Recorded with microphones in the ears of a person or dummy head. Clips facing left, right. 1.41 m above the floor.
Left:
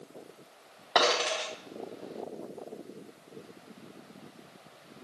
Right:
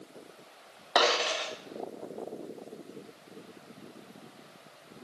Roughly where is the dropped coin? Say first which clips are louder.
Even; centre.